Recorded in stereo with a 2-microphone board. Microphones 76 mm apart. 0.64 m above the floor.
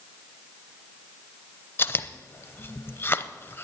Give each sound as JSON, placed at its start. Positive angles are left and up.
{"t": 1.8, "sound": "chewing", "side_deg": 35, "distance_m": 0.6}